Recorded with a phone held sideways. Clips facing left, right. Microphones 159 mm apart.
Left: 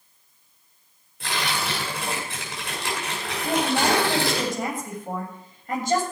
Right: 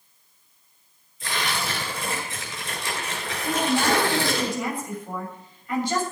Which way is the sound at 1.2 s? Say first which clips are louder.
Left 1 dB; 65° left (ahead or behind).